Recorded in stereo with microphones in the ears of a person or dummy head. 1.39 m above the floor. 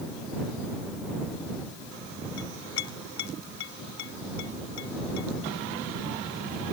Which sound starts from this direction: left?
A clink, at 2.4 s.